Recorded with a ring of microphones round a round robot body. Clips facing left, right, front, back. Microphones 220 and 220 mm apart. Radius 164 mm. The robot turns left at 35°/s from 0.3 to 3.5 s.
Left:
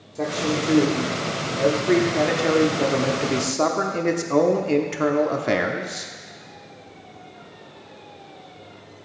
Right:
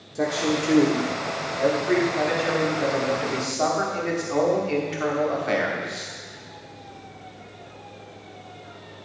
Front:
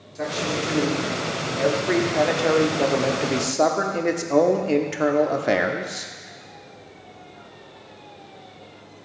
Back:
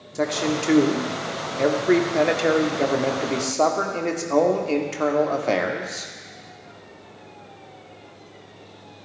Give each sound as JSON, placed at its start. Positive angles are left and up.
{"t": 0.1, "sound": "a man speaking", "azimuth_deg": -175, "distance_m": 1.2}